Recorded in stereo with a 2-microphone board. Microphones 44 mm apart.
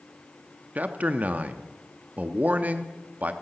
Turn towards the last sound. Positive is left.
turn(degrees=-35)  # may be behind; listen again after turning